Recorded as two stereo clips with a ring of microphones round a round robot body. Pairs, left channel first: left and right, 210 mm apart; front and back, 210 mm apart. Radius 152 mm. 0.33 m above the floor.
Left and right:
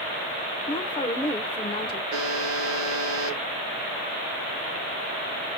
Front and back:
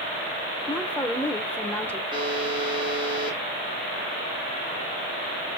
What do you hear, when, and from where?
0.7 s a woman speaking: 70° left, 0.9 m
2.1 s a buzzer: 105° right, 2.5 m